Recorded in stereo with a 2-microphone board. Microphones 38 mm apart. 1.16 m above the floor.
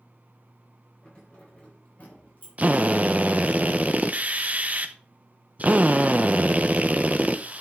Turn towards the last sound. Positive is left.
turn(degrees=-40)  # may be behind; listen again after turning